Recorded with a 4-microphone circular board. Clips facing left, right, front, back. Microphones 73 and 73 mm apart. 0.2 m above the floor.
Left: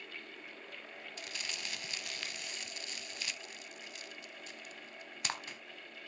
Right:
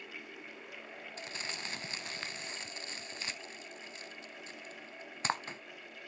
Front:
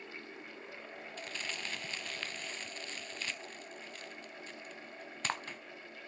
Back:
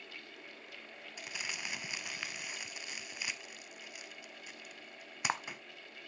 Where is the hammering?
I don't hear hammering.